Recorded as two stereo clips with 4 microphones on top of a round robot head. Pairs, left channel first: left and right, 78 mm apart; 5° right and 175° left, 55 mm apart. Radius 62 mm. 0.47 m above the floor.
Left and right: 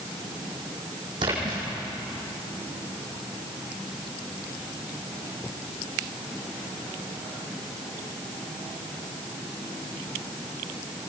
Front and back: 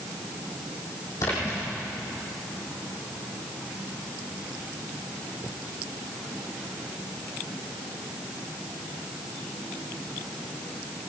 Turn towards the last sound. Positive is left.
turn(degrees=-50)